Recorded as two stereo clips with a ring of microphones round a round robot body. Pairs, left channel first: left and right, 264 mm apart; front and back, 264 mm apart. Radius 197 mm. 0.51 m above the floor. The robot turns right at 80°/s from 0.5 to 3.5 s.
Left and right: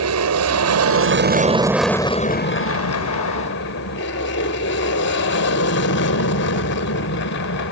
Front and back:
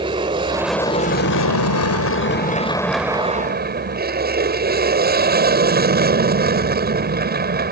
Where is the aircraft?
105° right; by 7.7 s 135° left.